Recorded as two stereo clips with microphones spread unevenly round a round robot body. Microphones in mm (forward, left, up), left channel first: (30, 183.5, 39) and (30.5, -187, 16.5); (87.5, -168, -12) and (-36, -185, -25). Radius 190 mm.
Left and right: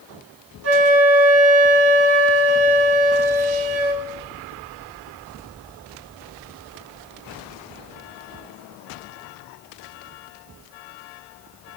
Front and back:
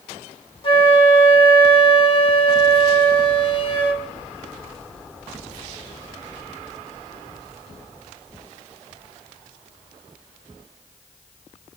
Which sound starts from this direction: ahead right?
A flute, at 0.6 s.